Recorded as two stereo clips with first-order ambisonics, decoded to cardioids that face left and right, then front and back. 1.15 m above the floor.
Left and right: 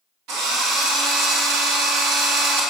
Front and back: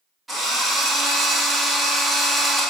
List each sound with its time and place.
0.3 s a drill: 100° right, 1.2 m